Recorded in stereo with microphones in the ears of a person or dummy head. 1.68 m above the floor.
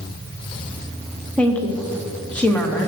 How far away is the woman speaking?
About 1.0 m.